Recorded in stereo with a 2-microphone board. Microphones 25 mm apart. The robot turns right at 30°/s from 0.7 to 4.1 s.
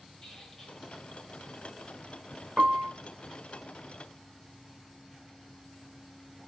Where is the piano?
65° right (ahead or behind), 0.9 m; by 2.9 s 75° right (ahead or behind), 0.9 m.